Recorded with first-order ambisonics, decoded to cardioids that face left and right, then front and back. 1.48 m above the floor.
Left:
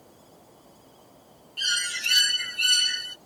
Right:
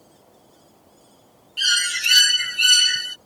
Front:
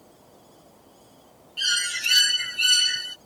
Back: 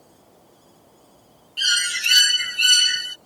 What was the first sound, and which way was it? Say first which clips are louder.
A bird: right 6 dB, back 4 dB; 125° right.